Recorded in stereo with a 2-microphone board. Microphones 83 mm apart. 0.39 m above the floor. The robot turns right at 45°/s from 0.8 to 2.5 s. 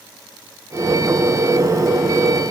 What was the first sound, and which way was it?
Only background noise.